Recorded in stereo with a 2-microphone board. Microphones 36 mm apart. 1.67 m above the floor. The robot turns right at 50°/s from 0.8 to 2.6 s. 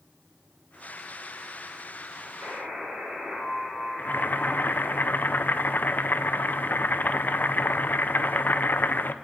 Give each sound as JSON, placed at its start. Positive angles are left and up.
{"t": 2.4, "sound": "a buzzer", "side_deg": -35, "distance_m": 5.0}
{"t": 4.0, "sound": "boiling", "side_deg": 55, "distance_m": 0.8}